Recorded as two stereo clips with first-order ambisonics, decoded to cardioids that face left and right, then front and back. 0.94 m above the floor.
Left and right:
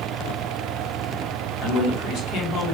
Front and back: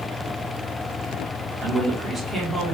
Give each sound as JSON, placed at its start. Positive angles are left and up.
{"t": 1.6, "sound": "a man speaking", "azimuth_deg": 100, "distance_m": 1.0}